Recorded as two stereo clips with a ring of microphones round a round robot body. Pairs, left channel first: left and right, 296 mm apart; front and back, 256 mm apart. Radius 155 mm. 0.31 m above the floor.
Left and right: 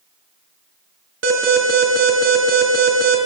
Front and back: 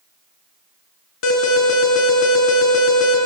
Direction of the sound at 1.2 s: 40° right.